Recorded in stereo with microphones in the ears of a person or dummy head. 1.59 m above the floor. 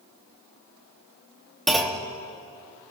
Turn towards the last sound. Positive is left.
turn(degrees=0)  # may be behind; listen again after turning